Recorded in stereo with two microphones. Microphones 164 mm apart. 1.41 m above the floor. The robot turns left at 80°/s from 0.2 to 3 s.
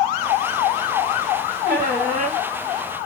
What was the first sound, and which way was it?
A squeak, 75° right.